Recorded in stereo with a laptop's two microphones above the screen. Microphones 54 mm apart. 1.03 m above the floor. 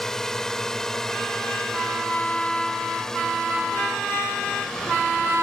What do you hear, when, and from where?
0.0 s a drone: 10° left (ahead or behind)